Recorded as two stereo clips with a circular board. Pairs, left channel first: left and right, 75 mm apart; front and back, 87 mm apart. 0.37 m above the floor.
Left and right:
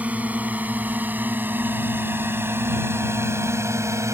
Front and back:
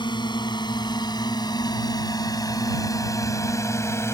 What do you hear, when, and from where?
0.0 s a drone: 20° right; by 4.1 s 50° right